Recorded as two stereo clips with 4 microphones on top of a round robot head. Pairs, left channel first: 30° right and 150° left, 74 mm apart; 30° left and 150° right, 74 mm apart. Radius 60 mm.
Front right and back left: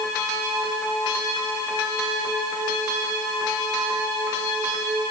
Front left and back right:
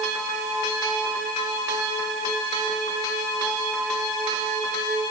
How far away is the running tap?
No running tap in this recording.